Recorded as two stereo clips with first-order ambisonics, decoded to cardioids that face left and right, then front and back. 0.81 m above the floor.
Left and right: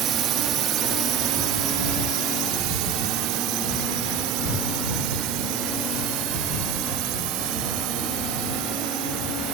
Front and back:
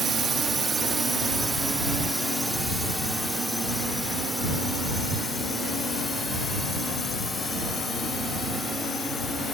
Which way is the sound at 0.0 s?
120° right.